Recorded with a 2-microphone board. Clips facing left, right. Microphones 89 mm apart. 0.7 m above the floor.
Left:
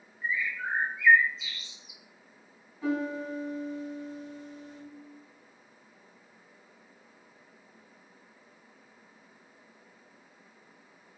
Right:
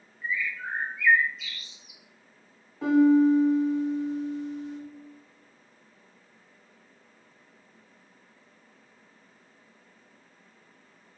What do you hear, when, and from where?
0.2 s a bird: 20° left (ahead or behind), 0.8 m
2.8 s a piano: 75° right (ahead or behind), 1.4 m